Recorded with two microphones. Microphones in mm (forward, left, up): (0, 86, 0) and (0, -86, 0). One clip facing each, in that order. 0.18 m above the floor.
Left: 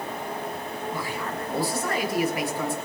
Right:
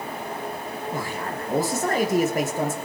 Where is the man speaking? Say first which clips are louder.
Right 2 dB; 45° right (ahead or behind), 4 m.